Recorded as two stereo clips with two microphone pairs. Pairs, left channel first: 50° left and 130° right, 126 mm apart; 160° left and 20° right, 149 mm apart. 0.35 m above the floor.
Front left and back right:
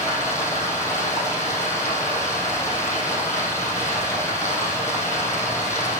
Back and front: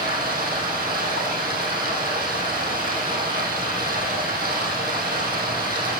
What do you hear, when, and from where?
0.0 s running water: 20° right, 2.5 m